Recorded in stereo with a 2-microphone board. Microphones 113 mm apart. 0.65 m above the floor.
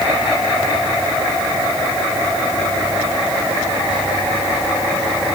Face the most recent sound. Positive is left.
No sound to turn to.